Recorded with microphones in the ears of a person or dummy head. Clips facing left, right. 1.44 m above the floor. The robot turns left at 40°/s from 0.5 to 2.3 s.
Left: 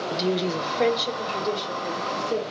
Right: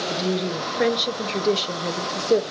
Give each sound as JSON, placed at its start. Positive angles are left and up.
{"t": 0.1, "sound": "a woman speaking", "azimuth_deg": 0, "distance_m": 0.6}